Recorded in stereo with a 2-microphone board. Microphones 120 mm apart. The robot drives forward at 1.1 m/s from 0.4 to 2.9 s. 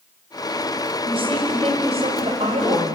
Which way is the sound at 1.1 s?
45° right (ahead or behind).